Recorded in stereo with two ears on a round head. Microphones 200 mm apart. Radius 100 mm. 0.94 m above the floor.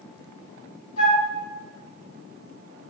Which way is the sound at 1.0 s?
55° left (ahead or behind).